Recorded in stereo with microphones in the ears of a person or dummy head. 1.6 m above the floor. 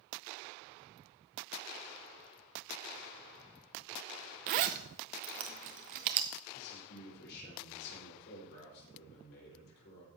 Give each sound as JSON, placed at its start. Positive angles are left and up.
{"t": 4.5, "sound": "a zipper", "side_deg": -35, "distance_m": 0.7}
{"t": 6.5, "sound": "a man speaking", "side_deg": 65, "distance_m": 6.0}